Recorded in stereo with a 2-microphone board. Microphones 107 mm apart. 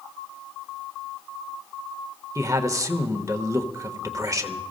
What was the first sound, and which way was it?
A man speaking, 30° right (ahead or behind).